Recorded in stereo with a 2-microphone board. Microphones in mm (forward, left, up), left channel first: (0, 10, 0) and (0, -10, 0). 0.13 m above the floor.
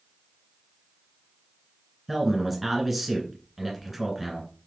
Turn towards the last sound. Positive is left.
turn(degrees=-5)  # may be behind; listen again after turning